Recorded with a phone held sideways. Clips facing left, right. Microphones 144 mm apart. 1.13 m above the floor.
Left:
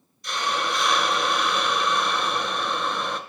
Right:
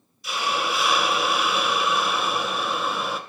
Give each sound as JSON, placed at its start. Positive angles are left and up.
{"t": 0.2, "sound": "a hiss", "side_deg": -5, "distance_m": 0.6}